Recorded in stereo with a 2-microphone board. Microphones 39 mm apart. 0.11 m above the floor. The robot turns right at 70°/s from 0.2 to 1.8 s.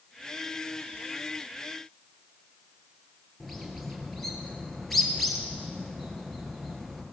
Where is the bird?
5° left (ahead or behind), 2 m.